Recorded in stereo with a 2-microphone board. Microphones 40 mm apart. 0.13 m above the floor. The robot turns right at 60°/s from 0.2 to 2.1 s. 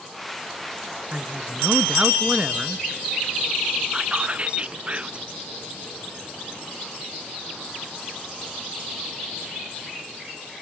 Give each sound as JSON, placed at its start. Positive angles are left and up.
{"t": 1.1, "sound": "a man speaking", "azimuth_deg": -105, "distance_m": 1.4}
{"t": 3.9, "sound": "whispering", "side_deg": -30, "distance_m": 1.6}